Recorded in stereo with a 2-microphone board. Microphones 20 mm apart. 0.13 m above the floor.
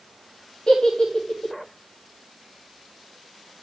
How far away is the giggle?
About 5 m.